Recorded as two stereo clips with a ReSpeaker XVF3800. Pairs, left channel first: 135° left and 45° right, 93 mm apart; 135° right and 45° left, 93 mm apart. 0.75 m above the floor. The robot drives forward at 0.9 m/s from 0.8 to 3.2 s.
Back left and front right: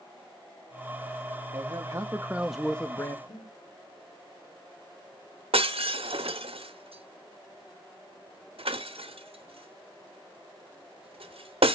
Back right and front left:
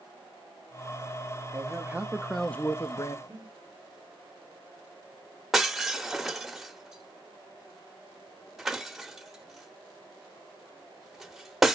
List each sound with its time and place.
1.5 s a man speaking: 10° right, 1.0 m; by 3.2 s 170° right, 0.9 m
3.3 s breathing: 100° left, 2.5 m
5.5 s breaking glass: 40° right, 0.8 m